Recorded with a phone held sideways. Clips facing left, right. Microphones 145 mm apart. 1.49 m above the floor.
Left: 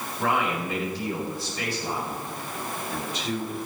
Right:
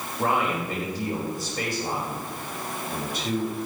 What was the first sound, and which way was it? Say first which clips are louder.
A man speaking: right 1 dB; 40° right (ahead or behind).